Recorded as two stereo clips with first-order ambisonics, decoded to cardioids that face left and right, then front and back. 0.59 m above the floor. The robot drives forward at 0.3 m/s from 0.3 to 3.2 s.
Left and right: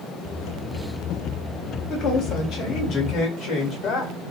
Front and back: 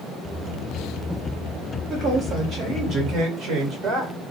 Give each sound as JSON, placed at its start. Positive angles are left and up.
{"t": 1.9, "sound": "a woman speaking", "azimuth_deg": 120, "distance_m": 1.4}